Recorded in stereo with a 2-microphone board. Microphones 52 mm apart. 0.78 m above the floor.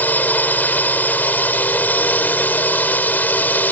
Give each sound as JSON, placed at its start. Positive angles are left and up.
{"t": 0.0, "sound": "a drone", "side_deg": 35}